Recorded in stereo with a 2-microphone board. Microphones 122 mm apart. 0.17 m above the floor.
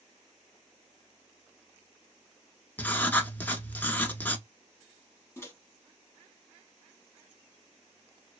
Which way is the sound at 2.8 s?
15° left (ahead or behind).